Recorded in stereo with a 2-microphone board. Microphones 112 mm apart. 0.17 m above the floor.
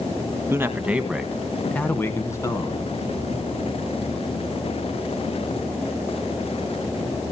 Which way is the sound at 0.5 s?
20° right (ahead or behind).